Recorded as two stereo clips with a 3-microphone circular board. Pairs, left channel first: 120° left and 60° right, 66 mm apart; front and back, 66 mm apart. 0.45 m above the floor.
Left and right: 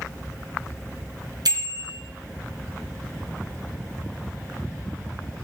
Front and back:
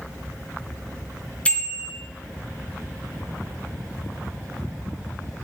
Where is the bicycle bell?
75° right, 4 m.